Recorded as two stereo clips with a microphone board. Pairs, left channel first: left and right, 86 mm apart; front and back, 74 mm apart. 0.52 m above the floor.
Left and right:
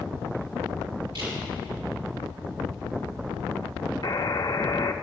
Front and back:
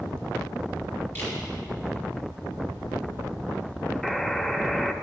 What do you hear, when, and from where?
1.1 s a camera shutter: 60° right, 4.5 m
4.0 s a buzzer: 85° left, 0.6 m